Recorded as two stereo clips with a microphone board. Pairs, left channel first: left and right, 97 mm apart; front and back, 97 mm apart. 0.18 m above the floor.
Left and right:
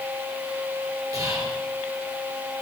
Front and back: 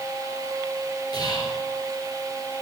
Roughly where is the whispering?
Ahead right.